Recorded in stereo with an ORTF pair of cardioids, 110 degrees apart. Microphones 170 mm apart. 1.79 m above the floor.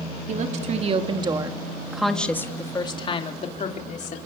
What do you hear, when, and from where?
0.3 s a woman speaking: 50° right, 3.5 m; by 4.2 s 50° left, 4.5 m